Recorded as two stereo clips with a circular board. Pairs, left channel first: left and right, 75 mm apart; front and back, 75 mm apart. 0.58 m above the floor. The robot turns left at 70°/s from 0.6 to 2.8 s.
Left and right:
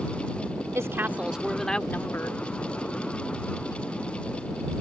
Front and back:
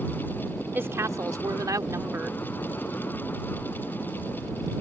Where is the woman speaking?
125° right; by 2.4 s 120° left.